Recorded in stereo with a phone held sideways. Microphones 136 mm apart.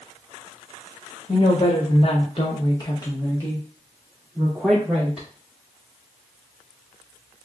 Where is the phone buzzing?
I don't hear a phone buzzing.